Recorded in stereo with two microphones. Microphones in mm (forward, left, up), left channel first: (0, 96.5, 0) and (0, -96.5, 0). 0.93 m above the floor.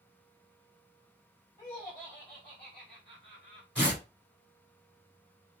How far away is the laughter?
About 1.7 m.